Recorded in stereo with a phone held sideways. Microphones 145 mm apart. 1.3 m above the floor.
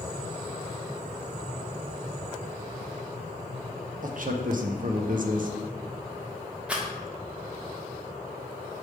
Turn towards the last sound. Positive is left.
turn(degrees=-5)  # may be behind; listen again after turning